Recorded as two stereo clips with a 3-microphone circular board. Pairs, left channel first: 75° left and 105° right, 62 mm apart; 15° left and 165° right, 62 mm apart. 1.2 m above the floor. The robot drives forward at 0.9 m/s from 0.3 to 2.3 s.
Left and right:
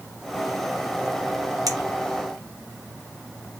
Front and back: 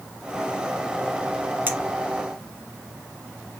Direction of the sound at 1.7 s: 105° right.